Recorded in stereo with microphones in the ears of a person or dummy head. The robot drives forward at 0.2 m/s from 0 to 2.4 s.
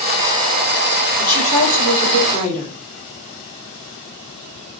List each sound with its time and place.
1.2 s a woman speaking: 45° left (ahead or behind), 2 m; by 2.8 s 40° left (ahead or behind), 2.5 m